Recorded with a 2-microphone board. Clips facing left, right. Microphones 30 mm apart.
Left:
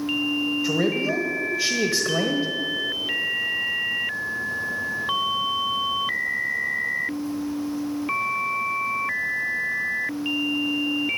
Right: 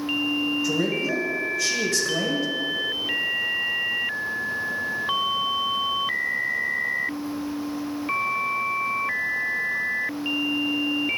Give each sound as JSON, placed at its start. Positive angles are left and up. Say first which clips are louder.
{"t": 0.6, "sound": "a man speaking", "louder": "left 1 dB", "side_deg": 25, "distance_m": 1.2}